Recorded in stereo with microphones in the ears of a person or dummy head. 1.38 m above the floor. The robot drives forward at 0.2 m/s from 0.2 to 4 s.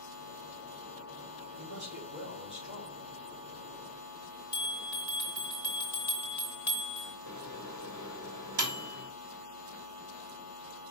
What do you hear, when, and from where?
1.6 s a man speaking: 70° right (ahead or behind), 3.5 m; by 3.1 s 65° right (ahead or behind), 3.5 m
4.5 s a bell: 10° right (ahead or behind), 1.7 m
7.3 s a microwave: 70° right (ahead or behind), 2 m